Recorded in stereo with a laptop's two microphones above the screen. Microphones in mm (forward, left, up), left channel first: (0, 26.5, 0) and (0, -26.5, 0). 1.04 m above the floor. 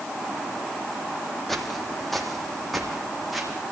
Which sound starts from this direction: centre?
Footsteps, at 1.5 s.